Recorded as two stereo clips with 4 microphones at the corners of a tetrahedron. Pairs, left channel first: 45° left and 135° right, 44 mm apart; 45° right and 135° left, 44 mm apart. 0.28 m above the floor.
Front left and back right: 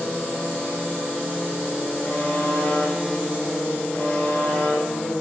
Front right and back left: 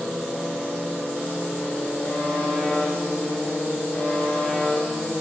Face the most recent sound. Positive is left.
turn(degrees=15)